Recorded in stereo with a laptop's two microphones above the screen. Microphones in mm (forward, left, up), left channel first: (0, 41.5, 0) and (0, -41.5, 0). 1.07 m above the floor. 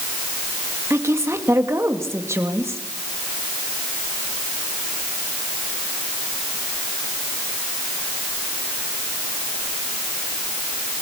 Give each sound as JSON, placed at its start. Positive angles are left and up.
{"t": 0.9, "sound": "a woman speaking", "side_deg": -35, "distance_m": 2.0}